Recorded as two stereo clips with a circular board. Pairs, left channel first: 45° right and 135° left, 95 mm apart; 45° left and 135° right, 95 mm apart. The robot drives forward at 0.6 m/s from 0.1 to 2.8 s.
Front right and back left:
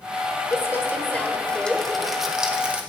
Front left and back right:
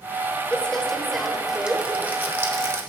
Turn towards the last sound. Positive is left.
turn(degrees=-160)